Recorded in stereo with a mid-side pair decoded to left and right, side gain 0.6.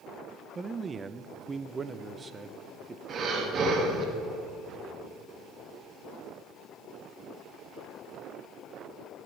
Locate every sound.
0.6 s a man speaking: 25° right, 0.6 m
3.1 s breathing: 45° right, 1.9 m